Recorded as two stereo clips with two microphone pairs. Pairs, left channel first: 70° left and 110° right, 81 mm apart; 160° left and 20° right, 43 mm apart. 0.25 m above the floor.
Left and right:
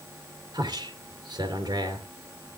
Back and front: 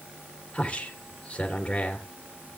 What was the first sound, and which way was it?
A man speaking, 130° right.